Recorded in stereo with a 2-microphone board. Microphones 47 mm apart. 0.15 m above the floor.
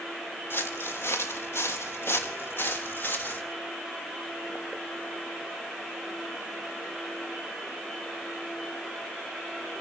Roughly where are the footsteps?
Left.